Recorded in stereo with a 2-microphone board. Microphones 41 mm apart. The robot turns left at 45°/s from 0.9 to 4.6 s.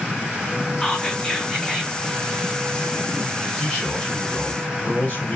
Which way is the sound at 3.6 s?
165° left.